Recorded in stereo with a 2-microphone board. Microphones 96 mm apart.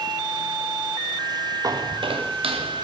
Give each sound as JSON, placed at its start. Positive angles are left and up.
{"t": 1.6, "sound": "footsteps", "side_deg": -40, "distance_m": 1.1}